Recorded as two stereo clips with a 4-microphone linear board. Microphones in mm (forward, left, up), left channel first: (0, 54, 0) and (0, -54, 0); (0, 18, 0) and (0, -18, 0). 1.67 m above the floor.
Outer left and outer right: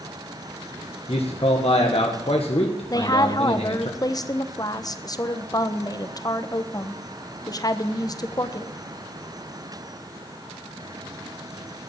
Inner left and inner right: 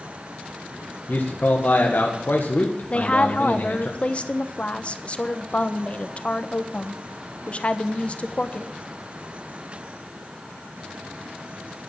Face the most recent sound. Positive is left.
turn(degrees=35)  # may be behind; listen again after turning